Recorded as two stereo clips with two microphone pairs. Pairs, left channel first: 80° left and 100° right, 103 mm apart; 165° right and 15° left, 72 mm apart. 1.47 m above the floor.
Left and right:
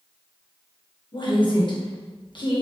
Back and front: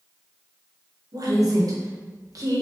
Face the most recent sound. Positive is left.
turn(degrees=40)